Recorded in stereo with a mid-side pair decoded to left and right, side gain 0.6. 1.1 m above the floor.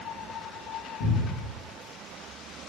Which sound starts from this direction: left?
A cupboard door, at 1.0 s.